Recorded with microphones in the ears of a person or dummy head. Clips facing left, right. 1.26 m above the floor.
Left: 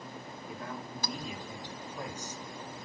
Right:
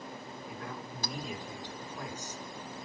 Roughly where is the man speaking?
Left.